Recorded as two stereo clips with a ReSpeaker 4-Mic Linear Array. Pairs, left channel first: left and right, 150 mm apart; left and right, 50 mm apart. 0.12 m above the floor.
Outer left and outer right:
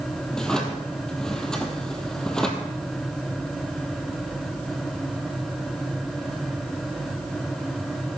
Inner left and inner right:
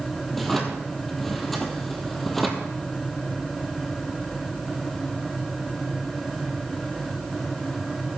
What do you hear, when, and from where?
0.3 s a drawer: 5° left (ahead or behind), 2 m